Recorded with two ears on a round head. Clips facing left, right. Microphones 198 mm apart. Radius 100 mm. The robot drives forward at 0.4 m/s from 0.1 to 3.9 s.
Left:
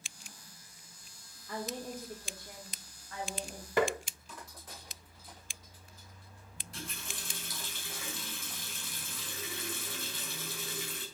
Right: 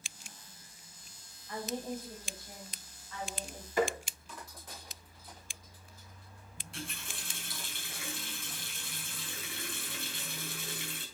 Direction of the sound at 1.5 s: 55° left (ahead or behind).